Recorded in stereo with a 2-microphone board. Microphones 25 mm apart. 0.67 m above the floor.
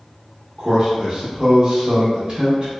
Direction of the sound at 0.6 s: 25° right (ahead or behind).